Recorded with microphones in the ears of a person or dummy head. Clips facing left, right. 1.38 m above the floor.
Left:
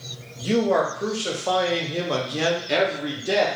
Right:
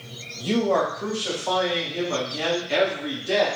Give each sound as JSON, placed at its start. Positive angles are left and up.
{"t": 0.4, "sound": "a man speaking", "side_deg": 15, "distance_m": 1.3}